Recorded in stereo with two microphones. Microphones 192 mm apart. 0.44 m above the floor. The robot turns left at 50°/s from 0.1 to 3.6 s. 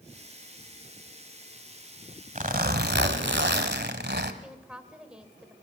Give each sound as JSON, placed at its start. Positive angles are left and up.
{"t": 2.4, "sound": "a zipper", "azimuth_deg": -45, "distance_m": 1.6}
{"t": 4.4, "sound": "a woman speaking", "side_deg": -5, "distance_m": 1.8}